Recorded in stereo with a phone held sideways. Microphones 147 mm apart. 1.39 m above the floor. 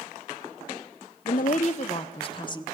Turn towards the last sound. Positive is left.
turn(degrees=30)  # may be behind; listen again after turning